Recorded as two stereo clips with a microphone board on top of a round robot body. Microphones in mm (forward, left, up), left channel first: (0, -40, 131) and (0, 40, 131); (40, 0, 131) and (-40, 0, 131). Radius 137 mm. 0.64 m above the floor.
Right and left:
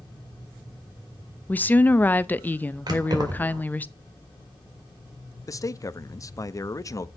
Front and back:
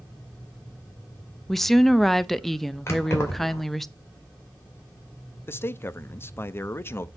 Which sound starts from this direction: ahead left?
Keys jangling, at 2.9 s.